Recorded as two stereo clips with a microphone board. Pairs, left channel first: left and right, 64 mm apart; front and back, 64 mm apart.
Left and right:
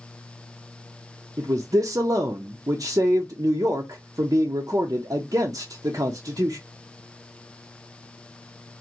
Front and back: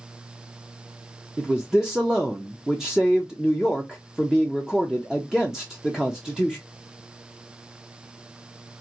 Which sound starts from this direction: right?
A man speaking, at 1.4 s.